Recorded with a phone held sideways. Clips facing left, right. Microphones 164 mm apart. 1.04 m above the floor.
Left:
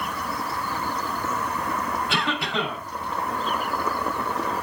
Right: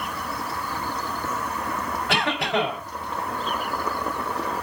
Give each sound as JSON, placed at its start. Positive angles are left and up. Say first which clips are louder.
{"t": 2.1, "sound": "a cough", "louder": "right 3 dB", "side_deg": -70, "distance_m": 4.5}